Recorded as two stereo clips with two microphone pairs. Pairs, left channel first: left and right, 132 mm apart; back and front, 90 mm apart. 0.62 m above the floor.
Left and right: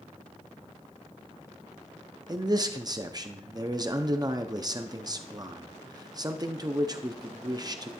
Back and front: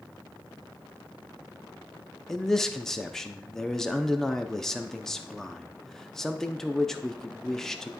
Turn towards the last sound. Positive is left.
turn(degrees=-105)